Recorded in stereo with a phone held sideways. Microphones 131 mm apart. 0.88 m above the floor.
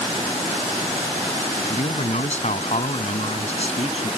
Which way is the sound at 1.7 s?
65° left (ahead or behind).